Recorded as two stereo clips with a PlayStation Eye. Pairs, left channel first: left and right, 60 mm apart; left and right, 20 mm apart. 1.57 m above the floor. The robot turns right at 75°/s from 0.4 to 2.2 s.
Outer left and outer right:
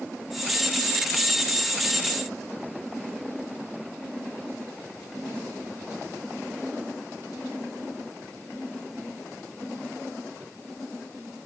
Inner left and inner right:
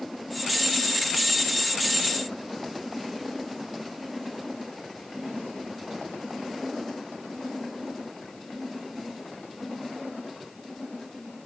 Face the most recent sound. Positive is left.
No sound to turn to.